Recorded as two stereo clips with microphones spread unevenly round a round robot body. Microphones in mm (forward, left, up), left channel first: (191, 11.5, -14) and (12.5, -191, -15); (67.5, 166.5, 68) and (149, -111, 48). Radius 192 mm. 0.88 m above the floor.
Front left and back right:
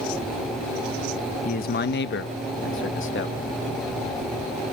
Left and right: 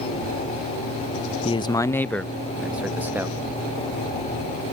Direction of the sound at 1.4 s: 45° left.